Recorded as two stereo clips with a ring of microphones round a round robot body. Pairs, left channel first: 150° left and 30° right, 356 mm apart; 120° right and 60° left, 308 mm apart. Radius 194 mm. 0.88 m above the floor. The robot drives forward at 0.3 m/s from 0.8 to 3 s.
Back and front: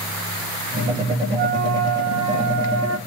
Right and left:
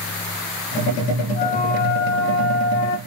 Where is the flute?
50° right, 0.9 m; by 3.0 s 85° right, 0.7 m.